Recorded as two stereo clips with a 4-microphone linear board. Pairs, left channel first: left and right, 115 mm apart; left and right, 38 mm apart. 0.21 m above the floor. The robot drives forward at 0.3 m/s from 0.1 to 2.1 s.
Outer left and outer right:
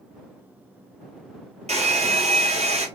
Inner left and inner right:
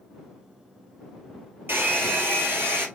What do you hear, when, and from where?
1.7 s a hair dryer: 75° right (ahead or behind), 1.2 m; by 2.9 s 70° right (ahead or behind), 1.2 m